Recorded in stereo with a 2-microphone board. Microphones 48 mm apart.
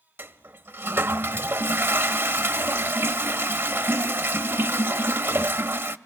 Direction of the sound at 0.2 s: 50° right (ahead or behind).